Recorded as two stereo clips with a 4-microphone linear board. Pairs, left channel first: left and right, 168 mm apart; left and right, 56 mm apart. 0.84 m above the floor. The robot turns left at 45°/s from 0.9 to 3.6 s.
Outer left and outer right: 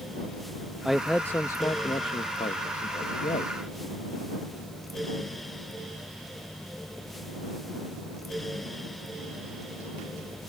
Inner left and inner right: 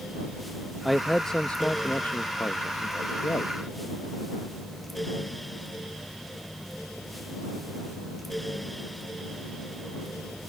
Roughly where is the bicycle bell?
No bicycle bell in this recording.